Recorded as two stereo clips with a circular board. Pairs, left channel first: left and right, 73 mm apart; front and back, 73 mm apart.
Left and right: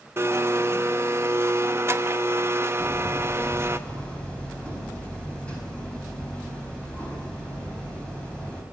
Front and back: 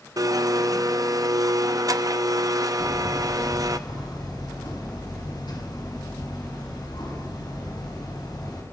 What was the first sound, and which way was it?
A blender, 145° right.